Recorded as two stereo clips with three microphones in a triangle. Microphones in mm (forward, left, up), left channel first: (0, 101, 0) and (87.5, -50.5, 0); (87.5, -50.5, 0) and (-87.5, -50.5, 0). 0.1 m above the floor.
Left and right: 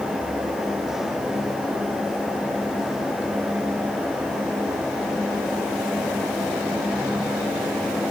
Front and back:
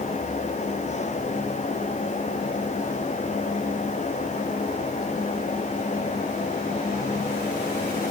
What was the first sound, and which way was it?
Only background noise.